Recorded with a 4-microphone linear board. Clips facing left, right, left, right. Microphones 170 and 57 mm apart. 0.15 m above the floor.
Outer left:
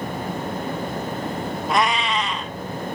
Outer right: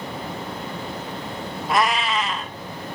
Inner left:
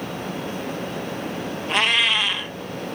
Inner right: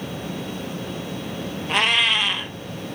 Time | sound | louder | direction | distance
1.7 | a cat meowing | outer right 1 dB, even | centre (ahead or behind) | 1.1 m